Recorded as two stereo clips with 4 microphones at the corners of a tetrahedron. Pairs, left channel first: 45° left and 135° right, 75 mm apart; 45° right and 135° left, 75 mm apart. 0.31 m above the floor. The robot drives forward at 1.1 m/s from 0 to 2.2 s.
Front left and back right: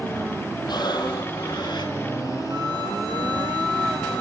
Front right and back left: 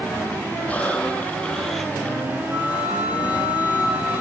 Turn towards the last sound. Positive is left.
turn(degrees=-155)